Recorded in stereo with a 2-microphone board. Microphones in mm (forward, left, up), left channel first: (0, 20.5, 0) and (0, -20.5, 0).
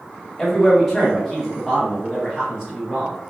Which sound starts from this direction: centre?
A man speaking, at 0.4 s.